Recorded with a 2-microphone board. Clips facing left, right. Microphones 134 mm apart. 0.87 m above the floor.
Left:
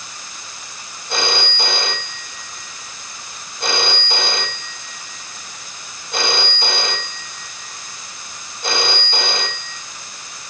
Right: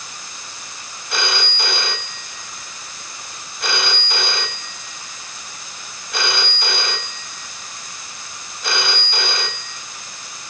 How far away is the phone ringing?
About 4 m.